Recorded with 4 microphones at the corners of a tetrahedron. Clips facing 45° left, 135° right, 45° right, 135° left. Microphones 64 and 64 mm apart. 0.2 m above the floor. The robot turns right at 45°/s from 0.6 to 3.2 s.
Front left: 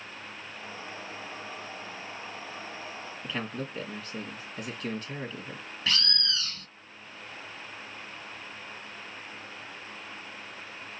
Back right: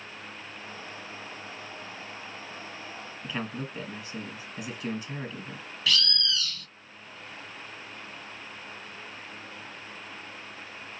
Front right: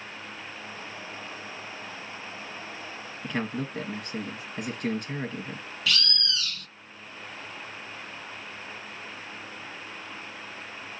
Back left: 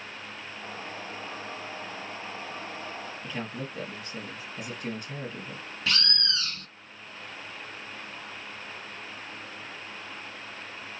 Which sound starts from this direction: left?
A bird, at 5.9 s.